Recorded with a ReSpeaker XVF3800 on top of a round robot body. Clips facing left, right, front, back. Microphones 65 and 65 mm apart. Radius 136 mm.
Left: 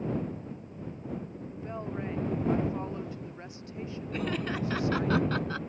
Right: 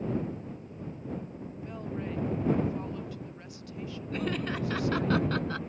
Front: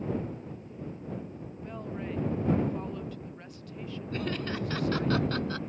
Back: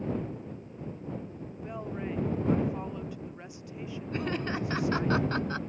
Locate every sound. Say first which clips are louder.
1.5 s a woman speaking: left 2 dB, back 2 dB; 115° left
4.1 s laughter: even, back 1 dB; 175° left